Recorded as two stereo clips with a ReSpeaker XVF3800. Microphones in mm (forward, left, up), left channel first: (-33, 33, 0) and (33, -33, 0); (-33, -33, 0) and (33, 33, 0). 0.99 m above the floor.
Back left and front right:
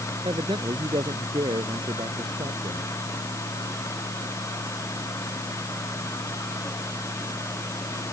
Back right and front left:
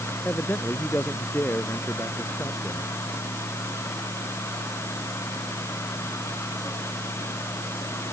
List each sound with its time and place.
0.2 s a man speaking: 65° right